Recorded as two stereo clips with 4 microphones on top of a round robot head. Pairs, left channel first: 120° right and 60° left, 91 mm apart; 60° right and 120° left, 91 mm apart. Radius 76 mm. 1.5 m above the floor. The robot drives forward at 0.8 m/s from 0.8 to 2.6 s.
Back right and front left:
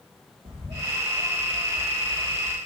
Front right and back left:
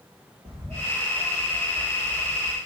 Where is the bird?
75° left, 1.7 m; by 2.6 s 125° left, 2.0 m.